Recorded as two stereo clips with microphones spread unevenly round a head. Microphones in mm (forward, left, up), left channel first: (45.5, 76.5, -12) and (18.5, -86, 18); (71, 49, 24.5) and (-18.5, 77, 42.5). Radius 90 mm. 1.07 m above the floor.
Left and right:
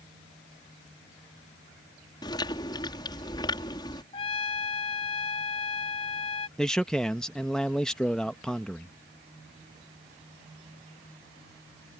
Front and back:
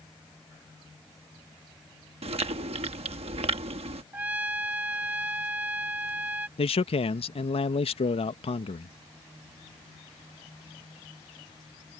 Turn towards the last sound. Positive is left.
turn(degrees=-5)